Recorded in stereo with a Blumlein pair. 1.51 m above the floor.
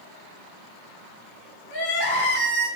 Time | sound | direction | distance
1.7 | crying | 50° left | 0.9 m